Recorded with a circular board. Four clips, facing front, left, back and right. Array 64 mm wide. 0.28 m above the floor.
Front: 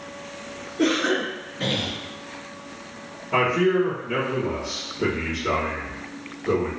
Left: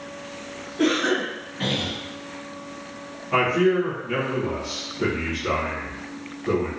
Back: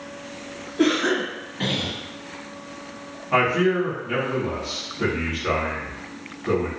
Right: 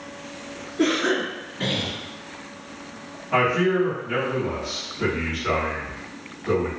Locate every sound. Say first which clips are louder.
0.8 s a cough: even, back 1 dB; 165° left, 1.6 m
3.3 s a man speaking: left 1 dB, even; 175° left, 1.6 m